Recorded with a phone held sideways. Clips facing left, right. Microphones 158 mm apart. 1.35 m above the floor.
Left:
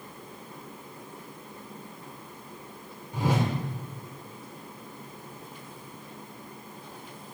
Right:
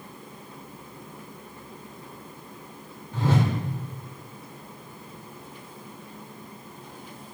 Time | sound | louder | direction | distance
3.1 | a whoosh | right 2 dB | 15° left (ahead or behind) | 1.3 m